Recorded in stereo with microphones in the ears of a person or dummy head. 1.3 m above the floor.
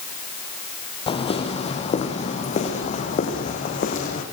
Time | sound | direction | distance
1.1 | footsteps | 30° left (ahead or behind) | 3.5 m